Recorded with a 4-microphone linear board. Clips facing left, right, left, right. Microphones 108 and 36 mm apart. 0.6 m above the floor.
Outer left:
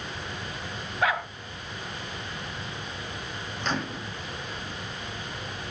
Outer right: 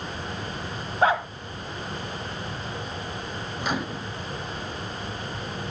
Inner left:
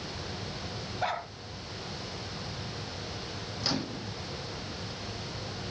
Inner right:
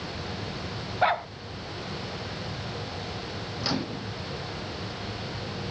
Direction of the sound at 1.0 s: 30° right (ahead or behind).